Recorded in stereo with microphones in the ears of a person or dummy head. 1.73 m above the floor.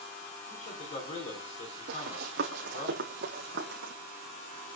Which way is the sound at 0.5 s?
40° left (ahead or behind).